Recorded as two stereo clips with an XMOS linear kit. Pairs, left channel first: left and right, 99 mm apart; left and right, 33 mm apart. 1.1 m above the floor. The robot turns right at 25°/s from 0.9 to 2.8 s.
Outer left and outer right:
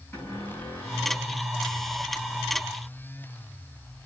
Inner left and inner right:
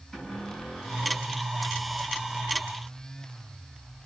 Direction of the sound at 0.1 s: 20° left (ahead or behind).